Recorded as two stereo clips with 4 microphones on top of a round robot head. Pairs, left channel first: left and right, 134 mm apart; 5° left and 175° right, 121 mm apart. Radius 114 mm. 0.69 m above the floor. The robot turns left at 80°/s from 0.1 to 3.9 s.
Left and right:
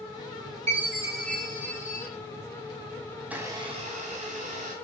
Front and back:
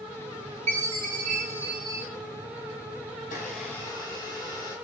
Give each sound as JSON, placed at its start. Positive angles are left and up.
{"t": 0.7, "sound": "a chime", "azimuth_deg": -140, "distance_m": 4.5}
{"t": 3.2, "sound": "a blender", "azimuth_deg": 0, "distance_m": 4.5}